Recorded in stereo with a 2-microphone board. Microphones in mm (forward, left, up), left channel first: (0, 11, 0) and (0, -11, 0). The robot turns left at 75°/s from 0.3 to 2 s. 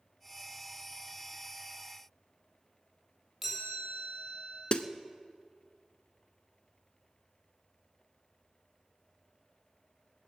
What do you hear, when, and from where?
3.4 s a chime: 10° right (ahead or behind), 6.5 m
4.7 s a snare drum: 50° left (ahead or behind), 0.7 m